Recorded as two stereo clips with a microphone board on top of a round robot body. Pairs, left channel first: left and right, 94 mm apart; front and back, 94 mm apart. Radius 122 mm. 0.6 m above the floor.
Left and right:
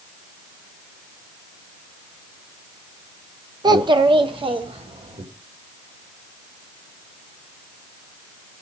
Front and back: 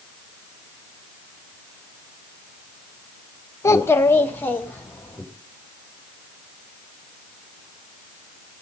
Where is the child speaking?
55° right, 0.8 m; by 5.2 s 75° right, 2.0 m.